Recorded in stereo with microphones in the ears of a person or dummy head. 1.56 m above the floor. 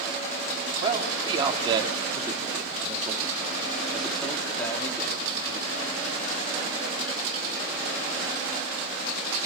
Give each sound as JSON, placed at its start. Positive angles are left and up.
{"t": 0.8, "sound": "a man speaking", "side_deg": -30, "distance_m": 4.0}